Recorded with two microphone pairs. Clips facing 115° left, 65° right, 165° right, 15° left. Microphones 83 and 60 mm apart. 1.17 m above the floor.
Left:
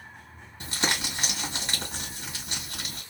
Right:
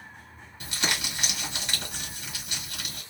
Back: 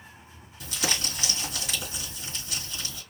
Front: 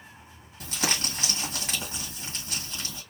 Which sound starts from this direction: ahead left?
Crumpling, at 0.6 s.